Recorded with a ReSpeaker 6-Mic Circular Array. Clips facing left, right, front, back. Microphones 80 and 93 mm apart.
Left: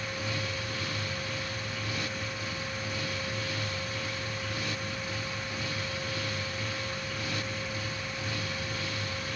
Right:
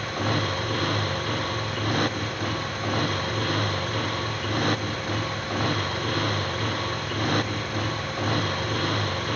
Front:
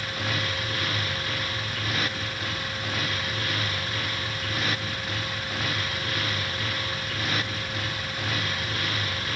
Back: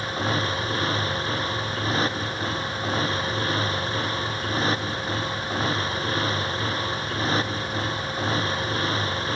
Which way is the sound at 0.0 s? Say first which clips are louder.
Right 8 dB, back 5 dB; 120° right.